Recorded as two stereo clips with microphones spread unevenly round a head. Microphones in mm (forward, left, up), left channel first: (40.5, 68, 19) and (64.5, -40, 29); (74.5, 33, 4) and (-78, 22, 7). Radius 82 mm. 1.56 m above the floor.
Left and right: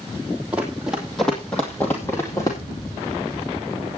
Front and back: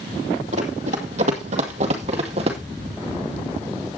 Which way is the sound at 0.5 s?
155° right.